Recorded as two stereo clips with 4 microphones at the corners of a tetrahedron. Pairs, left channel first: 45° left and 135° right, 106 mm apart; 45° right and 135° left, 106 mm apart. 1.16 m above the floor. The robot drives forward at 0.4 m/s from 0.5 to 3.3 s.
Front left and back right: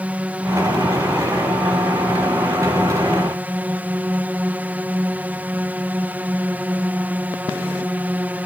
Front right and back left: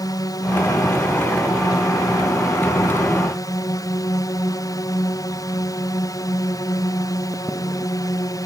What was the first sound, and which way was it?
A drone, 65° right.